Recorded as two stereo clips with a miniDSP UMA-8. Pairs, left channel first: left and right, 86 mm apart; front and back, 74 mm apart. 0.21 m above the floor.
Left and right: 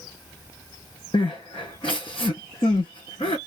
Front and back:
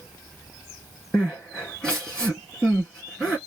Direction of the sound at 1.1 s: 75° left.